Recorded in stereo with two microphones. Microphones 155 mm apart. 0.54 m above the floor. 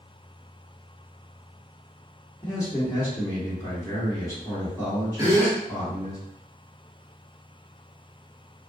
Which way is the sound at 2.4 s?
20° left (ahead or behind).